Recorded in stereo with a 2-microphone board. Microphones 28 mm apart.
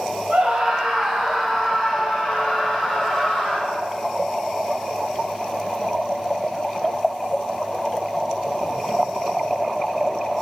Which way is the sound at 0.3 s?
50° right (ahead or behind).